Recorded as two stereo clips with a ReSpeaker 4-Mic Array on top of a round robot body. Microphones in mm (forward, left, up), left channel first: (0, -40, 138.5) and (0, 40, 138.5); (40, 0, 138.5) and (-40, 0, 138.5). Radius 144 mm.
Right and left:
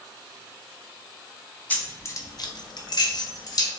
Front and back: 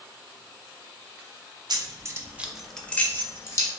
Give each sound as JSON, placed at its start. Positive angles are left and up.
{"t": 1.7, "sound": "keys jangling", "azimuth_deg": -160, "distance_m": 0.6}